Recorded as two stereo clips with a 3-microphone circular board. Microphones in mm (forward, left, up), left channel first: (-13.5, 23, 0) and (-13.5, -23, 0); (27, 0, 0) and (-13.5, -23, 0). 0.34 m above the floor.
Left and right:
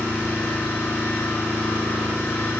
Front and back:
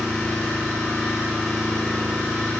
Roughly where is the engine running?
Behind left.